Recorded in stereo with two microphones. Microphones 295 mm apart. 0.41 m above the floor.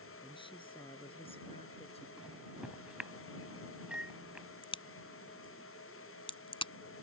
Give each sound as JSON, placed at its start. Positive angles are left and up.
{"t": 0.2, "sound": "a woman speaking", "side_deg": 15}
{"t": 2.2, "sound": "a microwave", "side_deg": -5}
{"t": 4.6, "sound": "a crack", "side_deg": 20}